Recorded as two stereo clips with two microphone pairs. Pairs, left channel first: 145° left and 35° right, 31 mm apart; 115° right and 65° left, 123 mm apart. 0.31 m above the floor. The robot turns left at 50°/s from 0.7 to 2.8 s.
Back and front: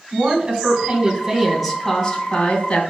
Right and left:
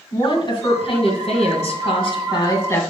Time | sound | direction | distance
0.1 | a woman speaking | 75° right | 2 m